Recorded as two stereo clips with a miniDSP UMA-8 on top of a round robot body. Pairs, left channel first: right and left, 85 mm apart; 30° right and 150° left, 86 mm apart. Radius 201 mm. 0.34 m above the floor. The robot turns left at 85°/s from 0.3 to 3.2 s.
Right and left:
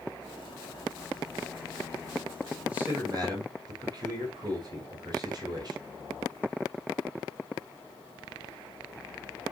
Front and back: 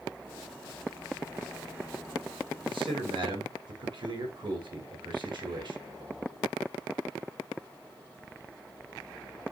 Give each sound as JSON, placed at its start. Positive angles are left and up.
{"t": 2.7, "sound": "a man speaking", "azimuth_deg": 170, "distance_m": 6.0}